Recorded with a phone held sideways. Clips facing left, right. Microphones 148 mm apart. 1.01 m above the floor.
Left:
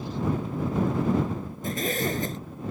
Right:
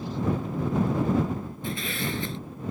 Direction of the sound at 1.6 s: 45° left (ahead or behind).